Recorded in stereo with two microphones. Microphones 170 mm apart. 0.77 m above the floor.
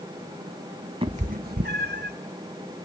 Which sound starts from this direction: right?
A cat meowing, at 1.0 s.